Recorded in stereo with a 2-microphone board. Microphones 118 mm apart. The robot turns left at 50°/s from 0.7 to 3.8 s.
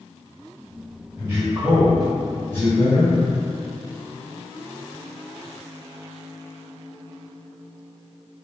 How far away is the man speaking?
About 1.3 m.